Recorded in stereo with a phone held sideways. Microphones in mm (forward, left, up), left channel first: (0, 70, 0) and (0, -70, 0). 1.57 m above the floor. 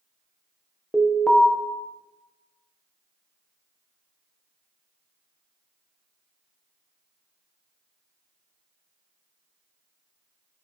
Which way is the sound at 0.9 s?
5° left (ahead or behind).